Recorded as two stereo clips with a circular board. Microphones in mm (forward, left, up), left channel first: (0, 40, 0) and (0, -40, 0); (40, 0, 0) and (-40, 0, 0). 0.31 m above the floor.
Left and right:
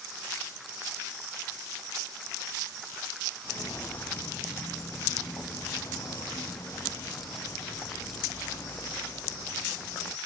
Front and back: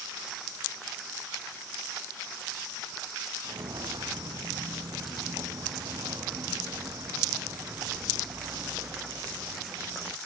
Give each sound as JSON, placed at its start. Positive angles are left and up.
{"t": 3.4, "sound": "footsteps", "azimuth_deg": 150}